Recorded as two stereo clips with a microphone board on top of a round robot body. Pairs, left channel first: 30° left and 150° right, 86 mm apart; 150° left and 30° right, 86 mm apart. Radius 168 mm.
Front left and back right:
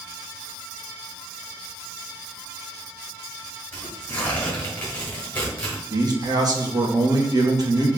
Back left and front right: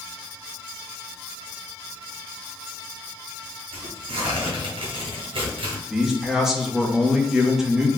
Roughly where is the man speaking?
Behind right.